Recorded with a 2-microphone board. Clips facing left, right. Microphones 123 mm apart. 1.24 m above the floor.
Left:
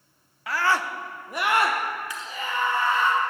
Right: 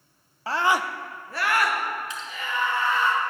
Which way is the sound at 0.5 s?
30° right (ahead or behind).